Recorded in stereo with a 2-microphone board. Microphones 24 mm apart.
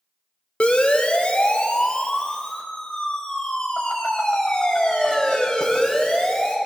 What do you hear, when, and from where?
0.6 s a siren: 50° left (ahead or behind), 2 m; by 6.6 s 35° left (ahead or behind), 5.5 m